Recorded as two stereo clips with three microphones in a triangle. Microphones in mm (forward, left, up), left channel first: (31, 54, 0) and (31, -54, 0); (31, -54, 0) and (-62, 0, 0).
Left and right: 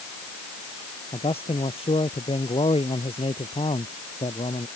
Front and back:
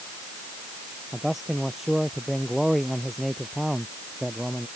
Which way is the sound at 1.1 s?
60° left.